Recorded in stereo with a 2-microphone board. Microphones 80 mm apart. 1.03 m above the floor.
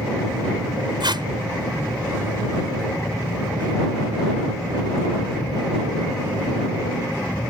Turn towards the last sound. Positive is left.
turn(degrees=-75)  # may be behind; listen again after turning